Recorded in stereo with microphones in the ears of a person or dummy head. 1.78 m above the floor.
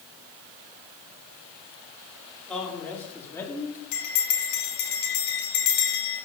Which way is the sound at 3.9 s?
65° left (ahead or behind).